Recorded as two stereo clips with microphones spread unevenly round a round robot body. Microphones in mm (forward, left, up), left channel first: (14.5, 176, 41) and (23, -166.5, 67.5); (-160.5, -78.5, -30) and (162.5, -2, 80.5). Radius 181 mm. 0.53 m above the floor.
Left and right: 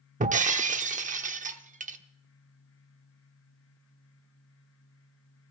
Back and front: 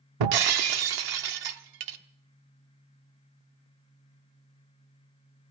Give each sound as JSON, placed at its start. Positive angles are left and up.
{"t": 0.2, "sound": "breaking glass", "azimuth_deg": -20, "distance_m": 1.0}